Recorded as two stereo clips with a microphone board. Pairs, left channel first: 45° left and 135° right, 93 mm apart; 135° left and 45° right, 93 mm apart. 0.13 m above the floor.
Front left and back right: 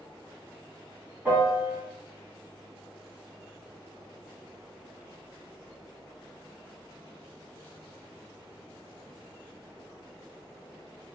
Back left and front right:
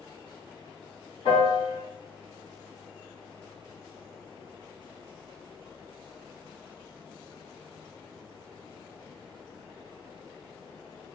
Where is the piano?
160° left, 1.7 m.